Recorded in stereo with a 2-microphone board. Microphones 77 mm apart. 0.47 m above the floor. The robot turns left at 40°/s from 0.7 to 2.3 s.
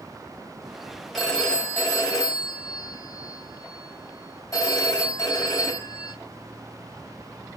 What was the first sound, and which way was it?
A phone ringing, 175° left.